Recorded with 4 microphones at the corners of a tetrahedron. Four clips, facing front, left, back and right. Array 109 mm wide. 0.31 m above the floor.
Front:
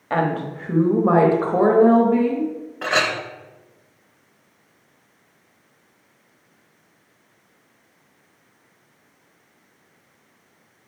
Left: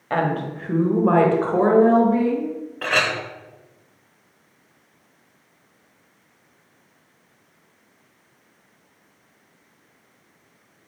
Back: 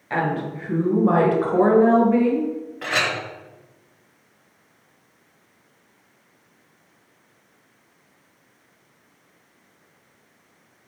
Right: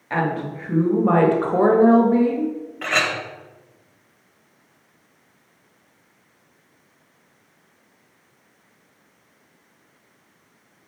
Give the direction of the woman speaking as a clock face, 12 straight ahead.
11 o'clock.